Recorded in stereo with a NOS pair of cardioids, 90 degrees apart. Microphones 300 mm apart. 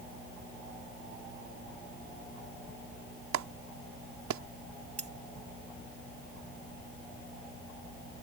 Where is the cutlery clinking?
25° right.